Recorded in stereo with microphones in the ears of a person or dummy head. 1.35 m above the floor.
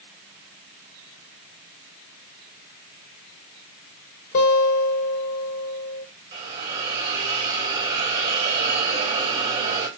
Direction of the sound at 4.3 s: 35° left (ahead or behind).